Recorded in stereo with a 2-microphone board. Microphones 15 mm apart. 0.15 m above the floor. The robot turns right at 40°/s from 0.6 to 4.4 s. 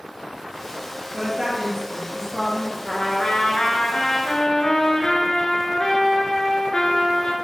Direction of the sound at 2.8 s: 65° left.